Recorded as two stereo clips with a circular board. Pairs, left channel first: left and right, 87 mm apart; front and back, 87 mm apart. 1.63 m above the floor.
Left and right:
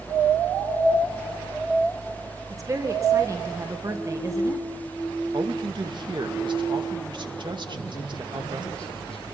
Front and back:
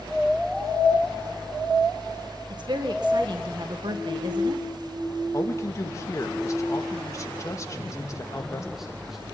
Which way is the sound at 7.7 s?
95° left.